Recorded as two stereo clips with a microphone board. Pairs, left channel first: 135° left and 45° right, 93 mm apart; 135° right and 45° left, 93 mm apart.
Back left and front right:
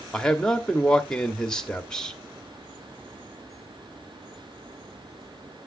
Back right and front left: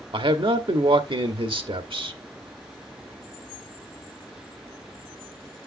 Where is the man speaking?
50° left, 1.2 m.